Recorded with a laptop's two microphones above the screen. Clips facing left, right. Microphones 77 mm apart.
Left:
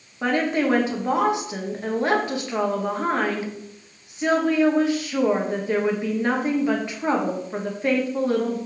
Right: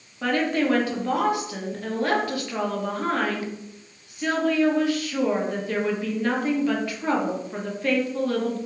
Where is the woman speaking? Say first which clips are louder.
Left 1 dB; 20° left (ahead or behind), 1.1 m.